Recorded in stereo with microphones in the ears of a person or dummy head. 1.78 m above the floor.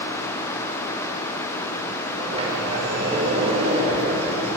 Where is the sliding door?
35° right (ahead or behind), 5.5 m.